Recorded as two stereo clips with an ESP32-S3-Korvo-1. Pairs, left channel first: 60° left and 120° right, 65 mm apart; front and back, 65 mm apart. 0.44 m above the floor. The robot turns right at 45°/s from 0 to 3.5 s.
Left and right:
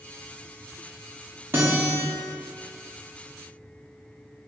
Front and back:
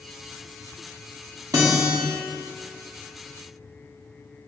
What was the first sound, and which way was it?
A guitar, straight behind.